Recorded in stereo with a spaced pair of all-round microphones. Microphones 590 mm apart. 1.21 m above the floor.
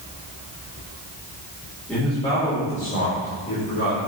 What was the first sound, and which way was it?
A man speaking, centre (ahead or behind).